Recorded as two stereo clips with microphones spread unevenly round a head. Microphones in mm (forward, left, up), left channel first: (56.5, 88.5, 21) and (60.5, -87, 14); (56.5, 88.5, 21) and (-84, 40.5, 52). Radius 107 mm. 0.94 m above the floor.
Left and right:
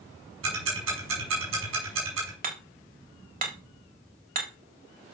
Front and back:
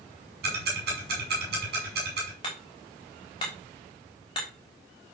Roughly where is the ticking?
Behind right.